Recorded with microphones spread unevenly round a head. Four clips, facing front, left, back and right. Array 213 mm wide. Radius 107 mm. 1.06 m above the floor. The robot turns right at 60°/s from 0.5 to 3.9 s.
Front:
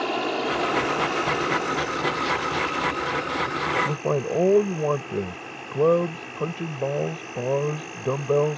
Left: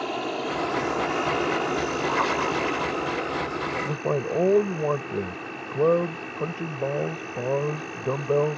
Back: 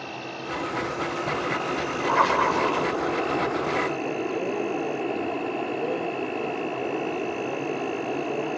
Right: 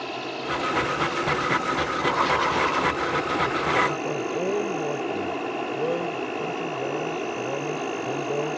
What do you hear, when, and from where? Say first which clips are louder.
0.0 s an insect: left 3 dB, front 10 dB; 15° left; by 8.6 s 140° right
2.1 s writing: right 3 dB, back 5 dB; 170° left; by 3.0 s 140° right
3.9 s a man speaking: even, front 2 dB; 25° left; by 8.6 s 30° left